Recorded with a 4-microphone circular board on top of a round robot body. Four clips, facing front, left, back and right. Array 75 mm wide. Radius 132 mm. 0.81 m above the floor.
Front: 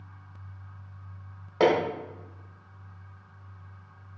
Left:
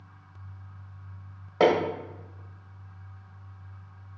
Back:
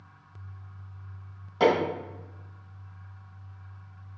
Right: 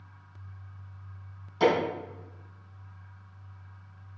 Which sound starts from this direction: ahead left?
Hammering, at 1.6 s.